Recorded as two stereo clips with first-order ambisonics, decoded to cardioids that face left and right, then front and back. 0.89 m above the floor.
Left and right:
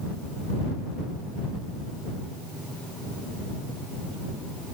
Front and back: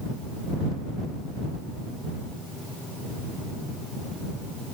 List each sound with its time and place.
Only background noise.